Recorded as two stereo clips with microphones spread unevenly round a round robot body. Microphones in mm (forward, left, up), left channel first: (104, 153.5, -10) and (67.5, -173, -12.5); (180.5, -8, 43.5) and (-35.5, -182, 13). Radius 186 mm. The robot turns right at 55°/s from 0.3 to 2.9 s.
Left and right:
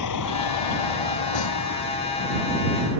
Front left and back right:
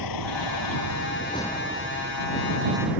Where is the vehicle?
50° left; by 3.0 s 155° right.